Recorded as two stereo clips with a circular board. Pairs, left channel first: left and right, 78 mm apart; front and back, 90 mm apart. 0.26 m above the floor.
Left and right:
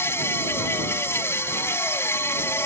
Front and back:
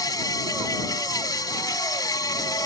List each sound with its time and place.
0.0 s an insect: 40° left